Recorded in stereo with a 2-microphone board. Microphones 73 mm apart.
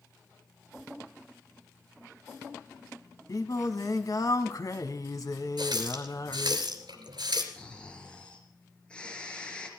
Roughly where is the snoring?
Centre.